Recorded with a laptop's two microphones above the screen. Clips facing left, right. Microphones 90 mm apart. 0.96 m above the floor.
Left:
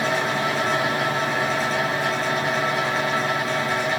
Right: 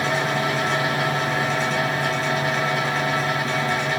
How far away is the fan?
About 2 m.